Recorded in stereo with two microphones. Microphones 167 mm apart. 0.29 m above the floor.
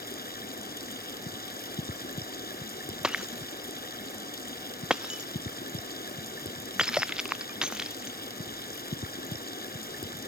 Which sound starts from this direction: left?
Running water, at 0.0 s.